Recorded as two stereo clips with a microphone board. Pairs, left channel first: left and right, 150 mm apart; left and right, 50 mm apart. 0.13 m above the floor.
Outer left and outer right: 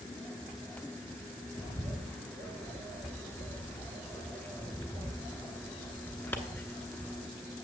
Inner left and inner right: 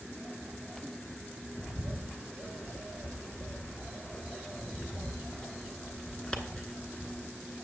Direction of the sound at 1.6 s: 15° left (ahead or behind).